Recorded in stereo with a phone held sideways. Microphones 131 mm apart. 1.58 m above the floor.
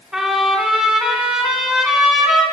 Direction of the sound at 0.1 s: 5° right (ahead or behind).